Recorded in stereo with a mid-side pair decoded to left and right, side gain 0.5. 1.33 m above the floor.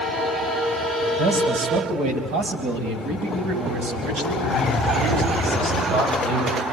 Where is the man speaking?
70° right, 9 m.